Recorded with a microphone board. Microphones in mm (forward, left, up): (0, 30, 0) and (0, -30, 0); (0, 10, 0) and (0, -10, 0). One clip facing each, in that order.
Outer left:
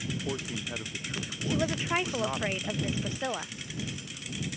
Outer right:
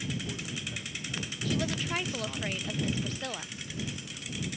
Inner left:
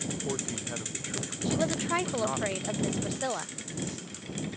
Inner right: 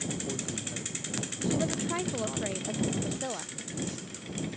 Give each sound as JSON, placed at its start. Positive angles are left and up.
{"t": 0.1, "sound": "a man speaking", "side_deg": 45}
{"t": 1.4, "sound": "a woman speaking", "side_deg": 20}